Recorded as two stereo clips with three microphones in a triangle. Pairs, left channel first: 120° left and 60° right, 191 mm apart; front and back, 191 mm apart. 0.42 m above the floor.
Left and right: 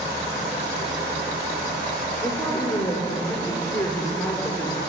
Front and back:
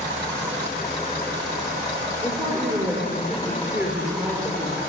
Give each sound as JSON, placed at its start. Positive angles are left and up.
{"t": 2.2, "sound": "a woman speaking", "azimuth_deg": 100, "distance_m": 1.0}